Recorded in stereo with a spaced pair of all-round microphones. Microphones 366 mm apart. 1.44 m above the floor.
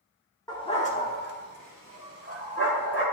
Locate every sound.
0.5 s a dog barking: 10° left (ahead or behind), 1.0 m; by 3.0 s 40° left (ahead or behind), 2.0 m